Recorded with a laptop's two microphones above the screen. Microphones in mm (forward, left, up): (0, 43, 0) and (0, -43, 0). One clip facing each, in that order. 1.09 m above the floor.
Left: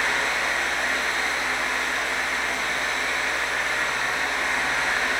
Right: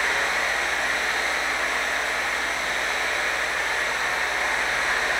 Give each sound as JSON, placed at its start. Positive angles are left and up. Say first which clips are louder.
{"t": 0.0, "sound": "a fan", "louder": "even", "side_deg": -25, "distance_m": 1.8}